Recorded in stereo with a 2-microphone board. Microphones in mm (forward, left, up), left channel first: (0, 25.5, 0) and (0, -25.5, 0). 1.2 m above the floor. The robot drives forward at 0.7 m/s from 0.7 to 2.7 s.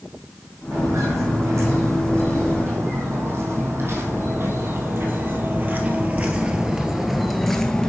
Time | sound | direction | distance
0.7 | footsteps | 70° right (ahead or behind) | 3.5 m